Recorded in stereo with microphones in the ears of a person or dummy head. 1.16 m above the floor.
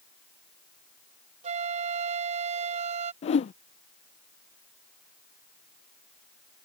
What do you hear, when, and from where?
1.4 s a flute: 35° right (ahead or behind)
3.2 s a whoosh: 30° left (ahead or behind)